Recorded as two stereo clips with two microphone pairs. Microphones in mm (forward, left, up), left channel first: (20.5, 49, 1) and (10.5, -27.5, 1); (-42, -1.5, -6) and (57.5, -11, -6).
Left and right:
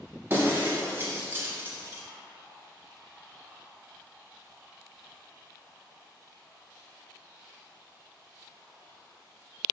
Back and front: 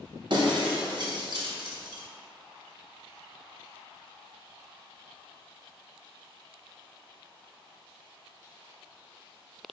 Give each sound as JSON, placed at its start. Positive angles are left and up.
{"t": 0.3, "sound": "breaking glass", "azimuth_deg": -35, "distance_m": 0.9}